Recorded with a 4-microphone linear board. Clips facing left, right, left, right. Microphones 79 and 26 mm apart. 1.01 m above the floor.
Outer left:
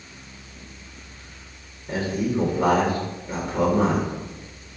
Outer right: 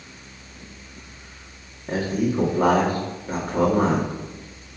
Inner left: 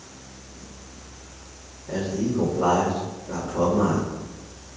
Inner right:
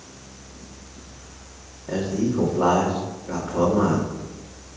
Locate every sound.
1.9 s a man speaking: 50° right (ahead or behind), 2.5 m